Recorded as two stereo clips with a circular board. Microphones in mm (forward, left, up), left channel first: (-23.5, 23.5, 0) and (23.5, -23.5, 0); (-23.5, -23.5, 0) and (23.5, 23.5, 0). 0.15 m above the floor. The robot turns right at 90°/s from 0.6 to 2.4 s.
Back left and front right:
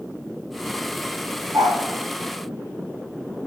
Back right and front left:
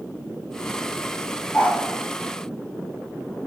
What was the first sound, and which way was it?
A dog barking, 80° right.